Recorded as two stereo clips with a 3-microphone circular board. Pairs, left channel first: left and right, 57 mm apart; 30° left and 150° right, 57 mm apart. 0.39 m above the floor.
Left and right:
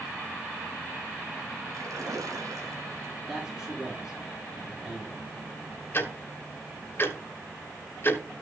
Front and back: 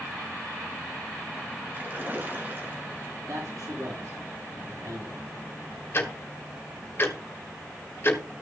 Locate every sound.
1.7 s a splash: 95° right, 1.6 m
3.3 s a man speaking: 160° right, 5.5 m
5.9 s ticking: 60° left, 1.3 m